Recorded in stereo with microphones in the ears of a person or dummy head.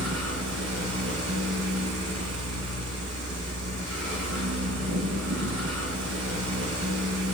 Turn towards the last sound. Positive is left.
turn(degrees=-75)  # may be behind; listen again after turning